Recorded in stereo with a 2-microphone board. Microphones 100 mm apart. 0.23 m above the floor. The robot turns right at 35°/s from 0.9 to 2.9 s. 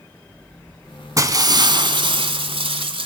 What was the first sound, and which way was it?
Breaking glass, 140° right.